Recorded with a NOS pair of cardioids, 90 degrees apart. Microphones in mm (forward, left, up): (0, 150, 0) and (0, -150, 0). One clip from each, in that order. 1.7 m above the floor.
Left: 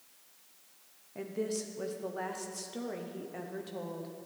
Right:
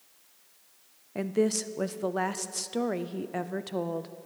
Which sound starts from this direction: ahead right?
A woman speaking, at 1.1 s.